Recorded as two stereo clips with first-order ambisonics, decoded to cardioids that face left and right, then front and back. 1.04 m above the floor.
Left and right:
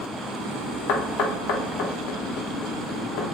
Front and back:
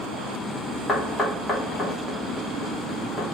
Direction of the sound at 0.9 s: 75° left.